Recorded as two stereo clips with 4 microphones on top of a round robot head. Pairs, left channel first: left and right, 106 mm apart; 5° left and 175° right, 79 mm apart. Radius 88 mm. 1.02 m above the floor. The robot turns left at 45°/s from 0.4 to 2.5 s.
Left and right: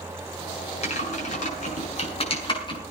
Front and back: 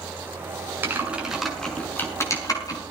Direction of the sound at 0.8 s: 120° left.